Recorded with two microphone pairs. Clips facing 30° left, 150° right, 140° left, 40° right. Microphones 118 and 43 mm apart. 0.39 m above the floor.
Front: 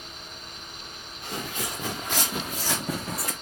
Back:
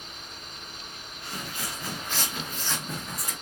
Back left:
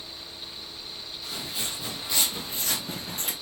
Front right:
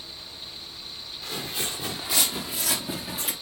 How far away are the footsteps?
About 2.5 m.